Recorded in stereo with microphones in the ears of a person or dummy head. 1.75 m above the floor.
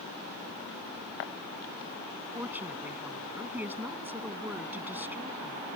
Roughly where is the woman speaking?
Centre.